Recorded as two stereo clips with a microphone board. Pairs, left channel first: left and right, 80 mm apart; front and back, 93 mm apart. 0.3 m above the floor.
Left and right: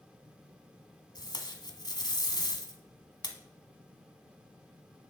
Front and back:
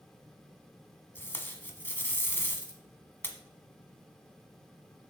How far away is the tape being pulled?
About 1.1 m.